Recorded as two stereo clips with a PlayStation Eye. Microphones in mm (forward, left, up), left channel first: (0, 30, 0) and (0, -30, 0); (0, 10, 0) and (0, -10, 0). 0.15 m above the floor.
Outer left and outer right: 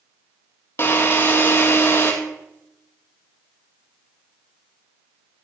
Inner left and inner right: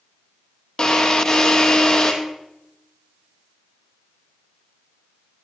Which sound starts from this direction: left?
A drill, at 0.8 s.